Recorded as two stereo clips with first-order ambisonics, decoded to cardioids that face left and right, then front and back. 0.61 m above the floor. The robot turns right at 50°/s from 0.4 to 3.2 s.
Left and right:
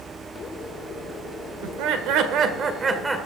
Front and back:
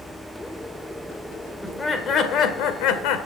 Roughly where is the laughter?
Right.